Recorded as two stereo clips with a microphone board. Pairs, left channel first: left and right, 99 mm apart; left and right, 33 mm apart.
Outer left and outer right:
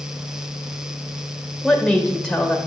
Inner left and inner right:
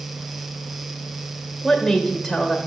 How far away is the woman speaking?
About 1.2 m.